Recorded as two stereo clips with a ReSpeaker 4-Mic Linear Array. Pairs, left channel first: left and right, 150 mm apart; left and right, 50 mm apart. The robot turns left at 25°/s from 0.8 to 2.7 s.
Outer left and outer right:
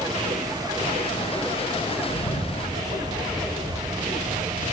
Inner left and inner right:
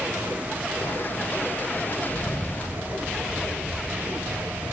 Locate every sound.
2.1 s a bird: 50° left (ahead or behind), 0.9 m; by 4.7 s 65° left (ahead or behind), 0.9 m